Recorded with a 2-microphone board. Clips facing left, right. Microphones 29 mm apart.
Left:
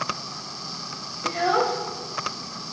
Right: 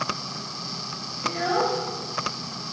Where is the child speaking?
15° left (ahead or behind), 1.8 m.